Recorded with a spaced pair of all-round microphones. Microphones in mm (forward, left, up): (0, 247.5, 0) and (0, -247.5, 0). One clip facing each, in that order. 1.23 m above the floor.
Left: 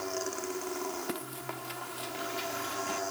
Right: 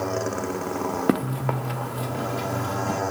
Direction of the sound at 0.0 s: 75° right (ahead or behind).